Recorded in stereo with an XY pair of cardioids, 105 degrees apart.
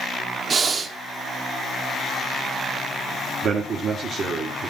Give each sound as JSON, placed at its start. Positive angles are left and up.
{"t": 0.5, "sound": "breathing", "azimuth_deg": -45, "distance_m": 1.1}
{"t": 3.4, "sound": "a man speaking", "azimuth_deg": -60, "distance_m": 1.6}